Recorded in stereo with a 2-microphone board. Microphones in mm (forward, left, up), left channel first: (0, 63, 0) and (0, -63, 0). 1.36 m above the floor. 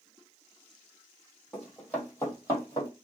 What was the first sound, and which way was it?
Running footsteps, 5° left (ahead or behind).